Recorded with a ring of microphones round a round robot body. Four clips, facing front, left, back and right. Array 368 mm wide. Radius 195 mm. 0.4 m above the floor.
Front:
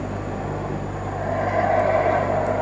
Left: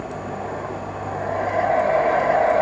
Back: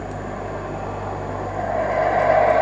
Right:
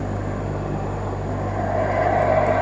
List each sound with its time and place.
Only background noise.